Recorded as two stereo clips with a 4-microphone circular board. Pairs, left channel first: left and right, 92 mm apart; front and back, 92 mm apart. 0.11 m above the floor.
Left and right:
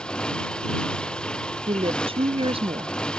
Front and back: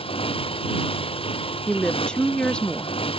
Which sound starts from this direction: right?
A woman speaking, at 1.7 s.